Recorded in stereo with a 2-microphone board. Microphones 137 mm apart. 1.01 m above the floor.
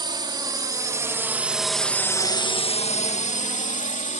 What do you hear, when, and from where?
0.0 s a drone: 35° right (ahead or behind); by 4.2 s 65° left (ahead or behind)